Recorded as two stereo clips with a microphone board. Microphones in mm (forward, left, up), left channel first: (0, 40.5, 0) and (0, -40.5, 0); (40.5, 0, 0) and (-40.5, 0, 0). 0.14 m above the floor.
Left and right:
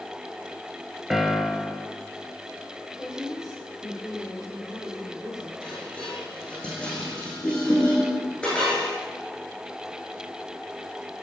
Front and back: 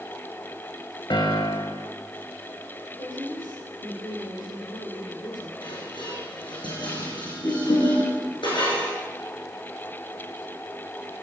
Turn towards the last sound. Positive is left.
turn(degrees=10)